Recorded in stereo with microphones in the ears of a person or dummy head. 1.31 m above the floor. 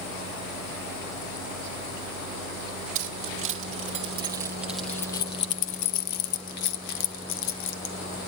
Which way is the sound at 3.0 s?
50° right (ahead or behind).